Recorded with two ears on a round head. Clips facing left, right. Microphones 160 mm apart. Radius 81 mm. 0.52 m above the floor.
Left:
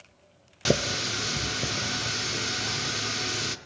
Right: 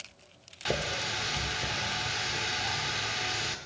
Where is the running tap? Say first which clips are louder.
Left 7 dB; 50° left (ahead or behind), 0.5 m.